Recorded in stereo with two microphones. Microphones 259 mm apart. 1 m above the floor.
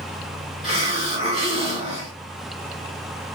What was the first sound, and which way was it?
A hiss, 25° right (ahead or behind).